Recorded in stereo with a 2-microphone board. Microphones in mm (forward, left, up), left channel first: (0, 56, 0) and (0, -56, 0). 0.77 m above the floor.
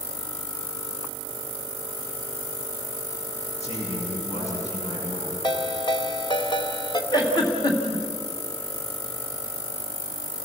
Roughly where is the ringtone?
Left.